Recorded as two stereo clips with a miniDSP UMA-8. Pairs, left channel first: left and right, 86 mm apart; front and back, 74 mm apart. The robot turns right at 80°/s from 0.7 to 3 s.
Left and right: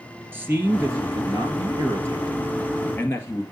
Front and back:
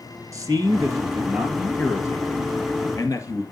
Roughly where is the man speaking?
Behind right.